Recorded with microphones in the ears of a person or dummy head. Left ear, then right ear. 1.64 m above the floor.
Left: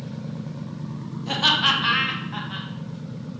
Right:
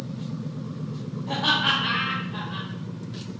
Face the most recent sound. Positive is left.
turn(degrees=60)  # may be behind; listen again after turning